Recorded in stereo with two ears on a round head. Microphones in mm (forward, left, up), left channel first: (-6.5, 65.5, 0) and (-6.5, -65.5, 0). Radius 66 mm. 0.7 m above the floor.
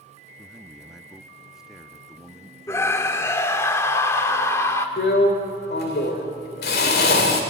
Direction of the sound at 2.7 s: 20° left (ahead or behind).